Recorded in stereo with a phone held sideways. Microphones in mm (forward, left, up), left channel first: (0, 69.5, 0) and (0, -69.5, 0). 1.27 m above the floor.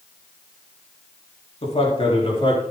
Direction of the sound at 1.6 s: 45° left (ahead or behind).